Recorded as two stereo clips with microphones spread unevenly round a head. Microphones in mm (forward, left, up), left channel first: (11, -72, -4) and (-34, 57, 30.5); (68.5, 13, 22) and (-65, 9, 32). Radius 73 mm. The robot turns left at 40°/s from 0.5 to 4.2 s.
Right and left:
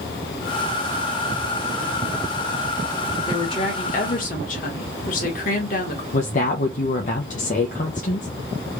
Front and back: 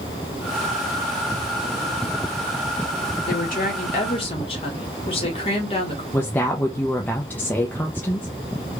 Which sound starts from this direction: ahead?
A woman speaking, at 3.3 s.